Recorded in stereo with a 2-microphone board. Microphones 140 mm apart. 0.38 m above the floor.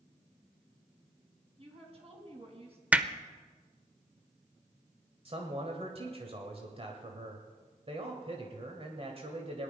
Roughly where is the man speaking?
Right.